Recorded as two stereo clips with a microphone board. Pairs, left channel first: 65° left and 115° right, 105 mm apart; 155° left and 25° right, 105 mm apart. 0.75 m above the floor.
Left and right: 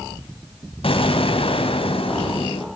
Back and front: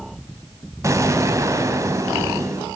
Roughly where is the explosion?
Ahead left.